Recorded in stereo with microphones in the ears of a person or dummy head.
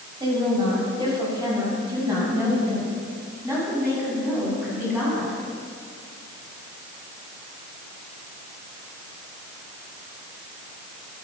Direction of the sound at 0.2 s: 30° right (ahead or behind).